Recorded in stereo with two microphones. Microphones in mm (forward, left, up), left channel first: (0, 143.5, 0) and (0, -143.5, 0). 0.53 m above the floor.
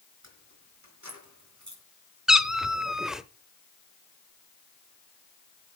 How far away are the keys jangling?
About 4.5 m.